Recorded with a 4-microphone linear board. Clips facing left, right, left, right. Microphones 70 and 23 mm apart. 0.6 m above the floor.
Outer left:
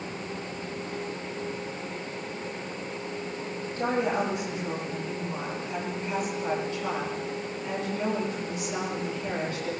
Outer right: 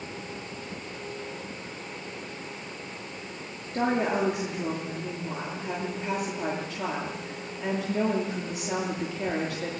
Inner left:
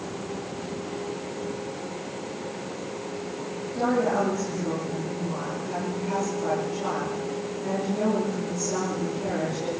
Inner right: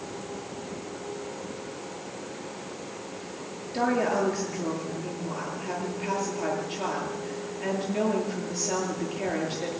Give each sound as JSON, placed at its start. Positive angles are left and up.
{"t": 3.7, "sound": "a woman speaking", "side_deg": -85, "distance_m": 10.0}